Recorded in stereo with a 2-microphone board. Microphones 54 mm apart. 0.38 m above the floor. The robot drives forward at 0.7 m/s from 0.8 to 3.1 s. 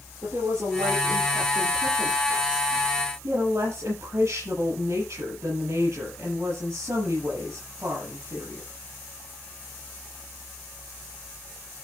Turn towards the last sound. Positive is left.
turn(degrees=-80)